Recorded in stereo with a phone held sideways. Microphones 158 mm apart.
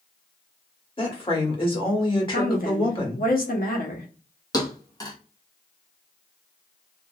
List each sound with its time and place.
1.0 s a woman speaking: 35° left (ahead or behind), 1.3 m
2.3 s a woman speaking: 65° left (ahead or behind), 0.9 m
4.5 s a thud: 25° left (ahead or behind), 1.0 m